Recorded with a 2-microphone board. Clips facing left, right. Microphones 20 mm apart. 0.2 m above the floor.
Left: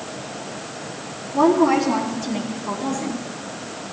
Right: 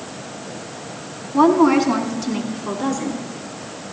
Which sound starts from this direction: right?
A woman speaking, at 1.3 s.